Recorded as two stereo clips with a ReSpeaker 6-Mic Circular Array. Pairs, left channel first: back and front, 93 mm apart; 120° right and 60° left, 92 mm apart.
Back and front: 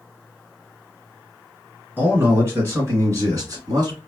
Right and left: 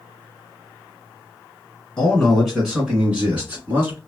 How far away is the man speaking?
About 1.7 m.